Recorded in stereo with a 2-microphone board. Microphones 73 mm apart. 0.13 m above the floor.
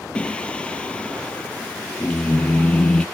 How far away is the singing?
About 0.5 m.